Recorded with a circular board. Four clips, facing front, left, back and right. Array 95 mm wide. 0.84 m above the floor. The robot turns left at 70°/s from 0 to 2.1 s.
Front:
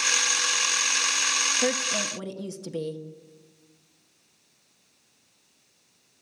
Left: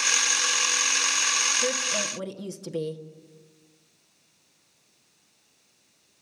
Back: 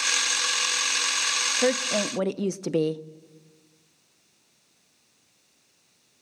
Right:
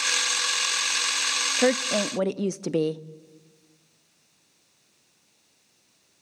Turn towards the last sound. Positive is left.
turn(degrees=-135)